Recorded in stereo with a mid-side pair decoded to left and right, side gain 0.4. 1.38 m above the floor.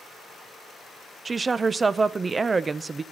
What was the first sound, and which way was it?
A woman speaking, 30° right.